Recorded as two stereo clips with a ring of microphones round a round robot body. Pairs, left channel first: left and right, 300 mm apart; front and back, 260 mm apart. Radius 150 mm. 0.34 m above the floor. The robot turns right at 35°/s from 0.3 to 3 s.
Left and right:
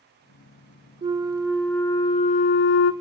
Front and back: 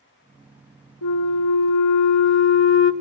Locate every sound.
1.0 s a flute: 25° right, 0.7 m; by 2.9 s 45° left, 0.7 m